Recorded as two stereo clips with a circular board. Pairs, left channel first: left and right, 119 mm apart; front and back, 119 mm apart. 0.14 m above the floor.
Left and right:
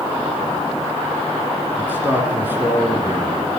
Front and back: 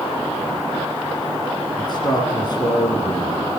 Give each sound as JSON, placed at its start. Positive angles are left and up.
{"t": 1.8, "sound": "a man speaking", "azimuth_deg": -25, "distance_m": 1.9}